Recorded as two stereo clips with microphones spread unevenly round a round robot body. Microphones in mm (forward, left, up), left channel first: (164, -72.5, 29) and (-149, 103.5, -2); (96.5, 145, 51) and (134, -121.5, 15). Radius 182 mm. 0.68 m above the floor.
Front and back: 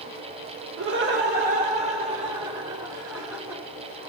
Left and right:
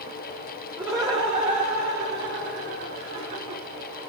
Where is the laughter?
160° right, 1.3 m; by 3.6 s 125° right, 3 m.